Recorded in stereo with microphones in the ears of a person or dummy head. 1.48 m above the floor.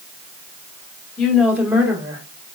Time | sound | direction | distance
1.2 | a woman speaking | 20° left (ahead or behind) | 1.1 m